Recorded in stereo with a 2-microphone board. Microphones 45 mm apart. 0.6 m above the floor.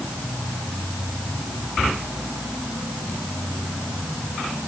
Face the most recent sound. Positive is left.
No sound to turn to.